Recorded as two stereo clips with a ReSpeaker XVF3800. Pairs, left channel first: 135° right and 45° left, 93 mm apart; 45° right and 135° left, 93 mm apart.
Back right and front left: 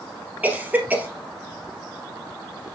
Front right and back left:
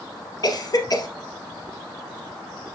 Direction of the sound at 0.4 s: 20° right.